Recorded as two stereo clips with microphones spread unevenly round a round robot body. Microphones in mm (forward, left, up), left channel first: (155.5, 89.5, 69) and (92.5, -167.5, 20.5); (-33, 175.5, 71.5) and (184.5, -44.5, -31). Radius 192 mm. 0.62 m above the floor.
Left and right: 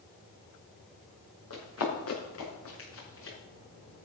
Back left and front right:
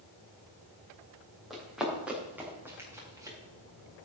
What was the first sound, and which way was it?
Running footsteps, 45° left.